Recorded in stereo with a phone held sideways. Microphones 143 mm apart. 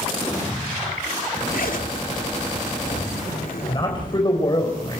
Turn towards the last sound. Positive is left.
turn(degrees=35)  # may be behind; listen again after turning